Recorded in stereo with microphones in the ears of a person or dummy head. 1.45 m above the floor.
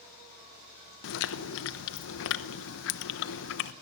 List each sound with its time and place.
1.0 s chewing: 80° left, 0.9 m